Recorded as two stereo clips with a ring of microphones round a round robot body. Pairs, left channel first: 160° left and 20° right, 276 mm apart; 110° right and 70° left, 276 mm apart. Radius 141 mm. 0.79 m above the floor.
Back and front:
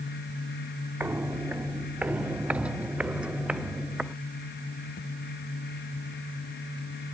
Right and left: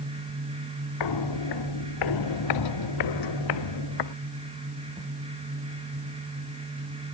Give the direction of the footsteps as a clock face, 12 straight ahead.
4 o'clock.